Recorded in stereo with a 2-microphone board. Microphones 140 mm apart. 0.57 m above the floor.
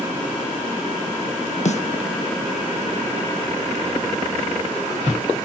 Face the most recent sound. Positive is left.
turn(degrees=55)  # may be behind; listen again after turning